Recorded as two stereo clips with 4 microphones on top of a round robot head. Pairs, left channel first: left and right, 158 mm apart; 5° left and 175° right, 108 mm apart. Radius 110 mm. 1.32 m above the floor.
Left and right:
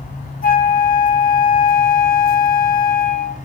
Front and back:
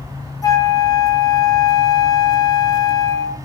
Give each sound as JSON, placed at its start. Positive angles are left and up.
{"t": 0.4, "sound": "a flute", "azimuth_deg": 60, "distance_m": 1.9}